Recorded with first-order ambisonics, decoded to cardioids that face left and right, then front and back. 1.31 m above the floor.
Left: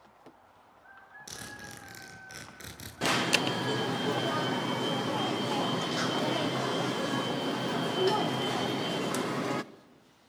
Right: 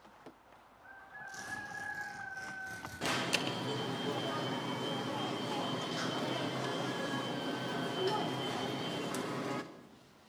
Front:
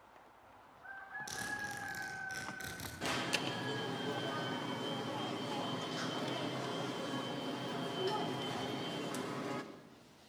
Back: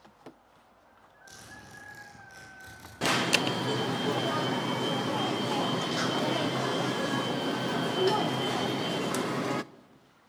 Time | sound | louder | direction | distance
1.3 | a zipper | right 1 dB, front 6 dB | 65° left | 9.5 m
3.0 | an alarm | left 7 dB, back 11 dB | 145° left | 0.7 m